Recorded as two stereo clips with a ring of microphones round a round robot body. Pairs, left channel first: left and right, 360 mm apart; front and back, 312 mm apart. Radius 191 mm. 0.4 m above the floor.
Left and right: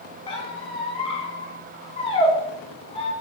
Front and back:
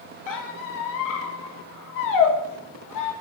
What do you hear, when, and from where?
0.3 s a squeak: 15° left, 0.6 m